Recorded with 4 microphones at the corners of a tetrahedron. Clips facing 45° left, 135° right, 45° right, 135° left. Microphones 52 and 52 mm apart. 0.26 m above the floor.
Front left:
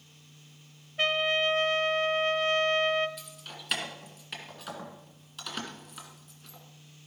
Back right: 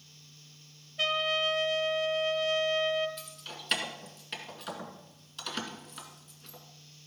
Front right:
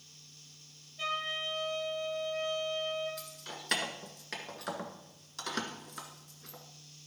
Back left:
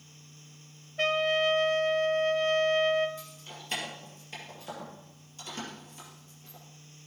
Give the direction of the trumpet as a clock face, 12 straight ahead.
9 o'clock.